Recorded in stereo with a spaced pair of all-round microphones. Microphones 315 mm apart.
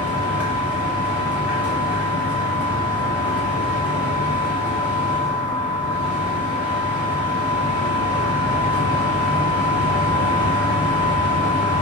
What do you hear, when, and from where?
0.0 s a machine running: 5° right (ahead or behind), 0.7 m